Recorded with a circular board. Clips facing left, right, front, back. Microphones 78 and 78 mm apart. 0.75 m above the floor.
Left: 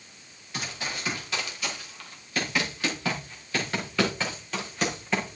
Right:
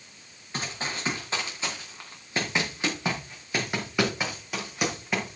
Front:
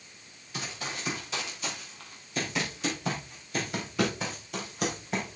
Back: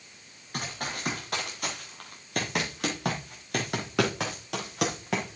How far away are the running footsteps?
About 5 m.